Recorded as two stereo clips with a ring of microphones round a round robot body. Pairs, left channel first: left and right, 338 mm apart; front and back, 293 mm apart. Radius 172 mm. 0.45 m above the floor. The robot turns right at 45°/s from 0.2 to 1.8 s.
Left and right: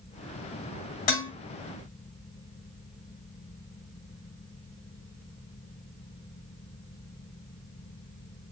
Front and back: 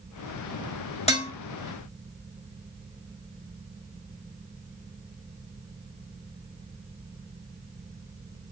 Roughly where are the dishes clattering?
Left.